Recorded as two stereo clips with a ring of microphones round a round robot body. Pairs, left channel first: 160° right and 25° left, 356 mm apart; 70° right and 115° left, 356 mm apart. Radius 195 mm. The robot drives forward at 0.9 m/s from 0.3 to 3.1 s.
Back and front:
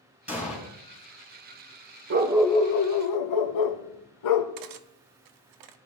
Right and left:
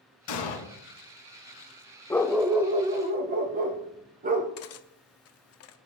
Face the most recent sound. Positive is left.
turn(degrees=-15)